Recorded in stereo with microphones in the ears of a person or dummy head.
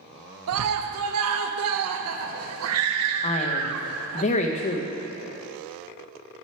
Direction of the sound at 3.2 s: 35° left (ahead or behind).